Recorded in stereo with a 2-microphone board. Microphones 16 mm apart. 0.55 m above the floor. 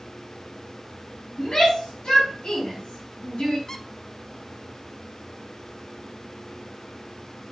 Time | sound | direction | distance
1.4 | a shout | 70° left (ahead or behind) | 4 m
3.7 | a squeak | 40° left (ahead or behind) | 0.7 m